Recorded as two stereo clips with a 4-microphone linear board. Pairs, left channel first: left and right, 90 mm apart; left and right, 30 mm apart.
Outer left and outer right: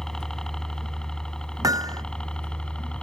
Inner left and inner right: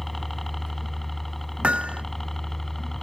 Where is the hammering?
40° right (ahead or behind).